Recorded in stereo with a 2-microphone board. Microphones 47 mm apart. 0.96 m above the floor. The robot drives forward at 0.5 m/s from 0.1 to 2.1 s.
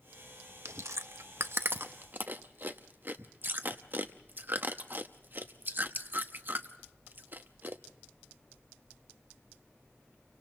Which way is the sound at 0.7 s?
75° right (ahead or behind).